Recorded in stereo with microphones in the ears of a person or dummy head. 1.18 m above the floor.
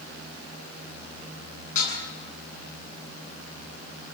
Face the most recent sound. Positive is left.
turn(degrees=45)  # may be behind; listen again after turning